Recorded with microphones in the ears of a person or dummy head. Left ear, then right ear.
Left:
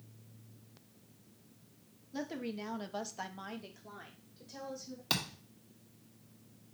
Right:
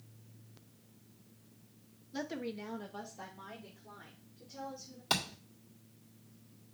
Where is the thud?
10° left (ahead or behind), 2.0 m.